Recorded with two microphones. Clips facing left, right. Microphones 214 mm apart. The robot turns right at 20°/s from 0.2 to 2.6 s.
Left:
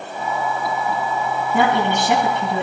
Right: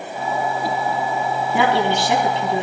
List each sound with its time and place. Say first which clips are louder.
1.5 s a woman speaking: even; 45° left (ahead or behind), 3 m; by 2.6 s 65° left (ahead or behind), 3 m